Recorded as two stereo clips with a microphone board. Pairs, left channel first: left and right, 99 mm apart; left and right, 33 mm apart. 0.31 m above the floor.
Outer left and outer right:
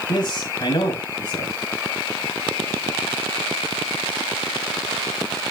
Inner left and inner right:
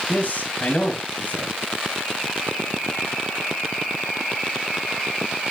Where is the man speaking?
50° left (ahead or behind), 2 m.